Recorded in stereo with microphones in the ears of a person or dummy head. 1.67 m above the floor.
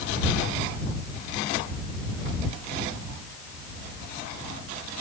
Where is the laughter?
I don't hear laughter.